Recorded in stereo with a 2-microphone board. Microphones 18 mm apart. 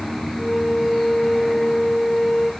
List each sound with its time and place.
0.4 s a flute: 70° left (ahead or behind), 4.5 m